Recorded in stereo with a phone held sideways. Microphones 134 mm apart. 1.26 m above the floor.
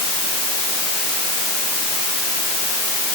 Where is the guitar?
I don't hear a guitar.